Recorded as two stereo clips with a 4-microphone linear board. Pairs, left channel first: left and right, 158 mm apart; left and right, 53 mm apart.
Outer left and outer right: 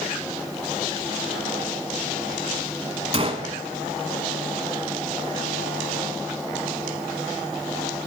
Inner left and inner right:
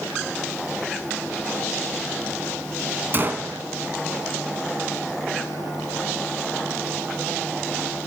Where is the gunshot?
40° right (ahead or behind), 0.9 m.